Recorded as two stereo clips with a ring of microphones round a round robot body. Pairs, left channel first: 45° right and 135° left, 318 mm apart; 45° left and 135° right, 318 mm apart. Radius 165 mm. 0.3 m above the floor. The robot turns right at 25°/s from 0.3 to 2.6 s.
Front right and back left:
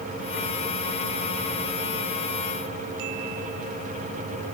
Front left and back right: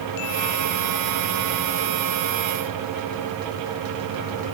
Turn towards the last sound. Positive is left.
No sound to turn to.